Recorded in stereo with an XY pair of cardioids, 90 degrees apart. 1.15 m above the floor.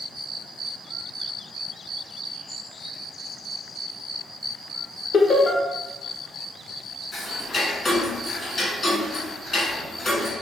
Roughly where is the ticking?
Ahead left.